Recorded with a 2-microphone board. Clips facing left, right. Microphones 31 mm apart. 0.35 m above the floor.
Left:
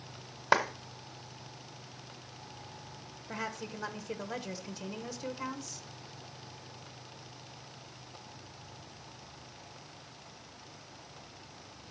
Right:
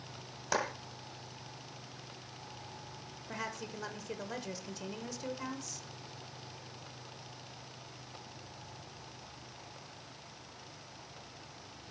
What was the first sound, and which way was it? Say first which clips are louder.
A clap: left 7 dB; 40° left (ahead or behind).